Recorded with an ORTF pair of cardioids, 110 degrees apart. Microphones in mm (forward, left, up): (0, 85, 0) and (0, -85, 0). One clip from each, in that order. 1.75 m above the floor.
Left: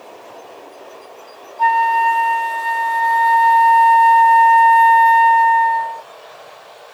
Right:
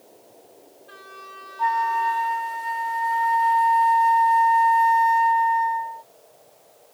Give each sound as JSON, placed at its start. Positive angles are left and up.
{"t": 1.6, "sound": "a flute", "azimuth_deg": 40}